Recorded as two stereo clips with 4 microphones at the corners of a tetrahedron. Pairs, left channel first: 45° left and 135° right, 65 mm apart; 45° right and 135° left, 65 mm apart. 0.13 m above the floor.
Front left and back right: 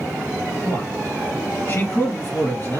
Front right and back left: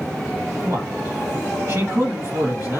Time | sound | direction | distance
0.6 | a man speaking | 105° left | 2.5 m